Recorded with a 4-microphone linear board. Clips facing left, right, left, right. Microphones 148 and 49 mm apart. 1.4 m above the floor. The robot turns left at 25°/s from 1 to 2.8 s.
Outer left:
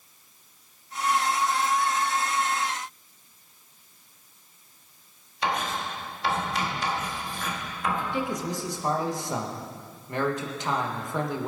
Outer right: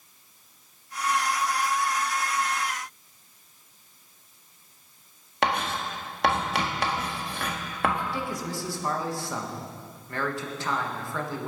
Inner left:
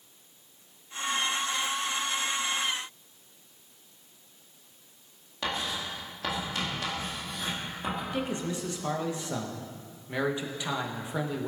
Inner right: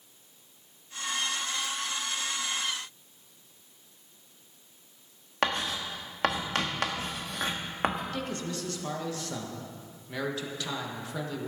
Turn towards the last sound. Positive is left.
turn(degrees=20)  # may be behind; listen again after turning